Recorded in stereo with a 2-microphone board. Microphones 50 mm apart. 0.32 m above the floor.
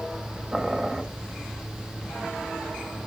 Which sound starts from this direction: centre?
Boiling, at 0.5 s.